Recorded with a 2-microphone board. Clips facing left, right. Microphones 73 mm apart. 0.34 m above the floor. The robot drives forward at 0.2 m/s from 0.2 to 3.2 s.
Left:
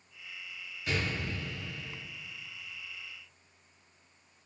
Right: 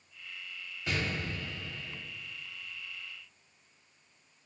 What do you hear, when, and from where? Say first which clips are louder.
0.9 s an explosion: even; 35° right (ahead or behind), 1.9 m